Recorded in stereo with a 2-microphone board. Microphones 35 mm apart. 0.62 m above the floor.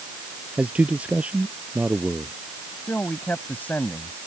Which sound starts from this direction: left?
A man speaking, at 2.9 s.